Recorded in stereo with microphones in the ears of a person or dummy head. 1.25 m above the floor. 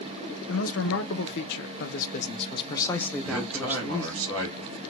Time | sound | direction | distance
0.5 | a man speaking | 65° left (ahead or behind) | 1.3 m
3.2 | a man speaking | 75° right (ahead or behind) | 2 m